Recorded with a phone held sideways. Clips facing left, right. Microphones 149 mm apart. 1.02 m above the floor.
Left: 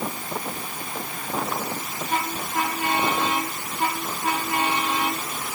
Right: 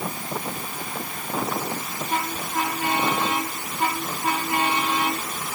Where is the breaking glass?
No breaking glass in this recording.